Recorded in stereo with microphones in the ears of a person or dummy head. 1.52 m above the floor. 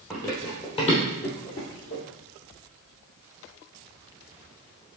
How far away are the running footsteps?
About 1.9 m.